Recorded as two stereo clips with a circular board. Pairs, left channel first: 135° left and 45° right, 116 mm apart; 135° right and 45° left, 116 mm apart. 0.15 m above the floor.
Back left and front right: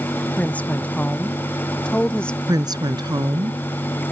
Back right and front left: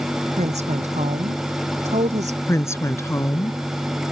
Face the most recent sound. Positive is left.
turn(degrees=-80)